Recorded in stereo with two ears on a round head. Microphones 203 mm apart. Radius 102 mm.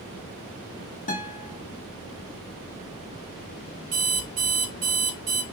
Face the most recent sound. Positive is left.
turn(degrees=-35)  # may be behind; listen again after turning